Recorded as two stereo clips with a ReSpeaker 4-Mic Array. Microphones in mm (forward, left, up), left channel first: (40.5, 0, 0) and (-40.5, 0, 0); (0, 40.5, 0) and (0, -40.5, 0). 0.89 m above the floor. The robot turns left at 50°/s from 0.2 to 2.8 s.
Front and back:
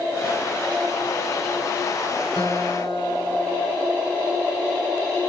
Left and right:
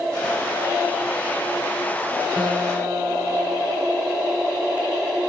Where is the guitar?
5° right, 5 m; by 4.5 s 25° right, 5 m.